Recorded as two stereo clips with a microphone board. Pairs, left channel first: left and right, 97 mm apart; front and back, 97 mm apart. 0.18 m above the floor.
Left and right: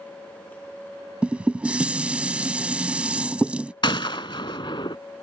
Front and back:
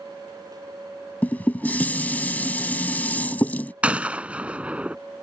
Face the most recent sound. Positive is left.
turn(degrees=105)